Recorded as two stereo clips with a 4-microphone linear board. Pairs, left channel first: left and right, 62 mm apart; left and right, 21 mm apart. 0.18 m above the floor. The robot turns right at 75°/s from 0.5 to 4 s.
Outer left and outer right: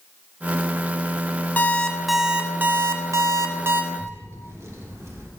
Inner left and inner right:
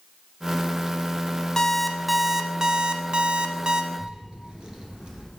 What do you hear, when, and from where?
1.6 s an alarm clock: 145° left, 0.7 m; by 3.8 s 45° right, 0.7 m
3.9 s a child speaking: 50° right (ahead or behind), 2.5 m; by 5.3 s 45° right (ahead or behind), 2.5 m